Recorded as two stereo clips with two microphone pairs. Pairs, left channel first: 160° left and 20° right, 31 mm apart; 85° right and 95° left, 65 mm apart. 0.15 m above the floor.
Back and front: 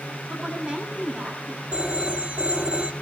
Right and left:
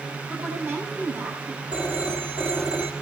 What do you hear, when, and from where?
0.3 s a woman speaking: 45° left, 8.5 m
1.7 s a phone ringing: 30° left, 2.5 m